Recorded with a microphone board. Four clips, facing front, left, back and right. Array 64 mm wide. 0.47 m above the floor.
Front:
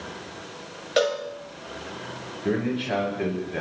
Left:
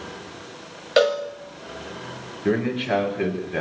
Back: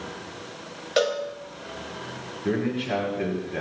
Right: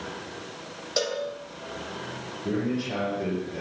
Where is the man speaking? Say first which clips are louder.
Left 6 dB, even; 90° left, 6.5 m.